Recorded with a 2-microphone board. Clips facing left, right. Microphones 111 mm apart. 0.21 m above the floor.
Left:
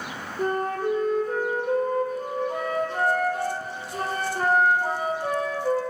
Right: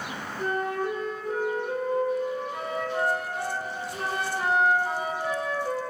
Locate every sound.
0.4 s a flute: 40° left (ahead or behind), 1.2 m